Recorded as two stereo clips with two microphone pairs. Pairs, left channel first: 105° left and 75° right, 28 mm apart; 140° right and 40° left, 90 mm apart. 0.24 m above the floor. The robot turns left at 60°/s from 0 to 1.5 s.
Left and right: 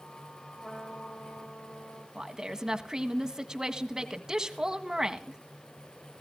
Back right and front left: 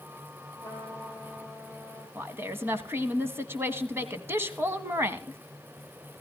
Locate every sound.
0.6 s a trumpet: 160° left, 4.5 m; by 2.0 s 110° left, 4.5 m
2.1 s a woman speaking: 15° right, 1.5 m